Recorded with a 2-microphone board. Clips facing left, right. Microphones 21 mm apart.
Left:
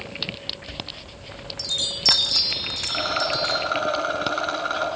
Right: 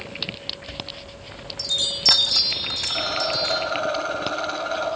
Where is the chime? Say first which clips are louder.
Even; 10° left (ahead or behind), 2.5 m.